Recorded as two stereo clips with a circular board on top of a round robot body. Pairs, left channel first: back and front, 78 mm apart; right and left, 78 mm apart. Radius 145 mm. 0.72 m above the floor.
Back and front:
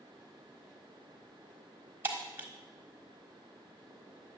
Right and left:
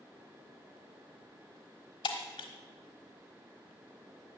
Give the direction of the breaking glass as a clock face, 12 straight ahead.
2 o'clock.